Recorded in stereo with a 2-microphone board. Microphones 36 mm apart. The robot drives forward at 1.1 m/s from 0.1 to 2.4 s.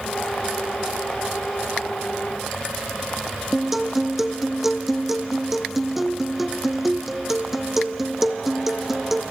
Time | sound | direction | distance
3.5 | a guitar | 5° right (ahead or behind) | 1.1 m